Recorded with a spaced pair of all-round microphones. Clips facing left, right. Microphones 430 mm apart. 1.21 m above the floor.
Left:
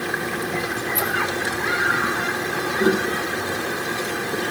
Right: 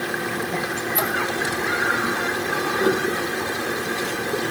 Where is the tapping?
30° left (ahead or behind), 1.7 m.